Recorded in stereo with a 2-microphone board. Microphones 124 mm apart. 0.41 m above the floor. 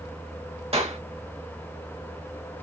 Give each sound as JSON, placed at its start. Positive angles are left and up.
{"t": 0.7, "sound": "a clap", "side_deg": -55, "distance_m": 1.6}